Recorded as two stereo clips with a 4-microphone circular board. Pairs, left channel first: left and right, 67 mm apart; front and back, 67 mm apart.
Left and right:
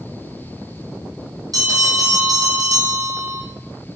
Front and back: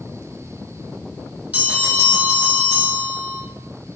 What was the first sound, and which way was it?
A bell, 110° right.